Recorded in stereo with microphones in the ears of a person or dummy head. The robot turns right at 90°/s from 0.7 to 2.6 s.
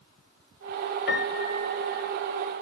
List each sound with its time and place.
1.1 s a piano: 115° left, 2 m; by 2.1 s 150° right, 2 m